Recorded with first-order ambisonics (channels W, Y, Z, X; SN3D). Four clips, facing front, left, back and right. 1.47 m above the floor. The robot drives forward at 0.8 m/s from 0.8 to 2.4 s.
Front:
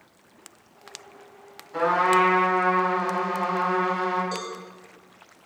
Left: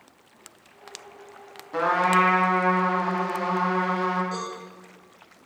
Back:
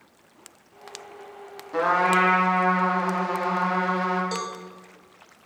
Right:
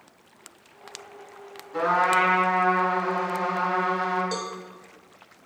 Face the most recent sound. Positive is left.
turn(degrees=-130)